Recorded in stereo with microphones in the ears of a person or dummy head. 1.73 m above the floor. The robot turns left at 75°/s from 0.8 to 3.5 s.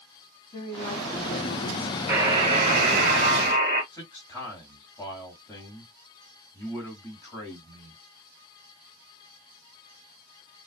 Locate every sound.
0.5 s a woman speaking: 145° left, 1.0 m; by 3.1 s 25° right, 1.0 m
2.1 s a buzzer: 25° right, 1.8 m; by 3.8 s 130° right, 1.8 m
3.9 s a man speaking: 10° left (ahead or behind), 1.9 m